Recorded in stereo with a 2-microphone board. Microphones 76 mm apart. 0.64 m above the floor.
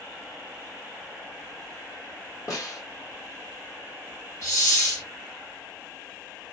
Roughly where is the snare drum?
Left.